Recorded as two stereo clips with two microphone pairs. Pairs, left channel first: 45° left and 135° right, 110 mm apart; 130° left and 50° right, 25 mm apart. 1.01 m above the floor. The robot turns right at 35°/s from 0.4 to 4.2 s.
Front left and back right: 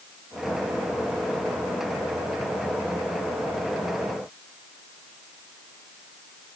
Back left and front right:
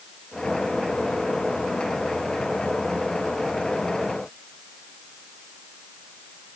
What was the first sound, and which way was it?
Only background noise.